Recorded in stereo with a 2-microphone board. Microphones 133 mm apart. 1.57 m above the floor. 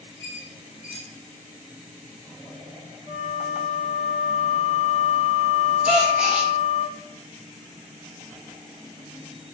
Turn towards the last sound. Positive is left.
turn(degrees=-10)  # may be behind; listen again after turning